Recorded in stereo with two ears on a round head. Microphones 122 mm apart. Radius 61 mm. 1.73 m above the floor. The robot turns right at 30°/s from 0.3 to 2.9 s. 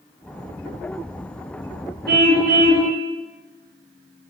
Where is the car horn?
80° right, 5.5 m; by 2.9 s 65° right (ahead or behind), 5.5 m.